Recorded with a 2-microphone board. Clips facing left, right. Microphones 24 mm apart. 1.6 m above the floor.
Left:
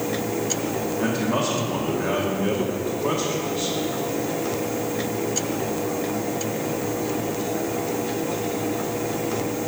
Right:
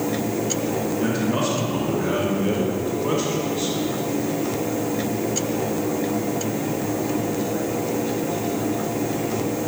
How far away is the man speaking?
About 1.5 m.